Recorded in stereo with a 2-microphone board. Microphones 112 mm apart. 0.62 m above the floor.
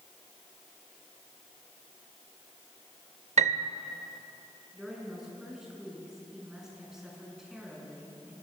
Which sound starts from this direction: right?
A piano, at 3.4 s.